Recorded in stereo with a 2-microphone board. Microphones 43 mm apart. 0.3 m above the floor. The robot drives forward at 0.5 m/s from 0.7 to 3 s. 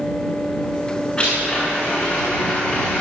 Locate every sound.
1.2 s a blender: 20° left (ahead or behind), 8 m